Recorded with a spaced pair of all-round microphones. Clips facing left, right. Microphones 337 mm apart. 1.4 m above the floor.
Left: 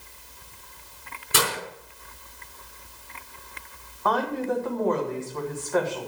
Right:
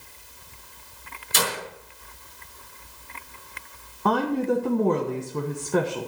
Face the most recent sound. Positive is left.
turn(degrees=-40)  # may be behind; listen again after turning